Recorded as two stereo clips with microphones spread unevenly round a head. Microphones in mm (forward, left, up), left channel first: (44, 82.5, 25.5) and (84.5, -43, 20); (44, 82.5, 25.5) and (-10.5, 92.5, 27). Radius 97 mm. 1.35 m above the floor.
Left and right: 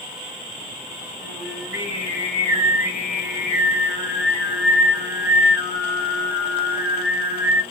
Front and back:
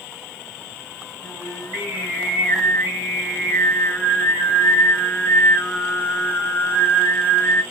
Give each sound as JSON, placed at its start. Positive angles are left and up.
{"t": 1.2, "sound": "singing", "azimuth_deg": -130, "distance_m": 1.6}